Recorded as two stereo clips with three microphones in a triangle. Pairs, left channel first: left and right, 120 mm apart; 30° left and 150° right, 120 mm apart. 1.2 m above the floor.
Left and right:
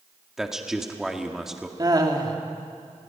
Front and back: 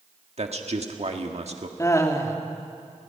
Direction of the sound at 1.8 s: 35° right.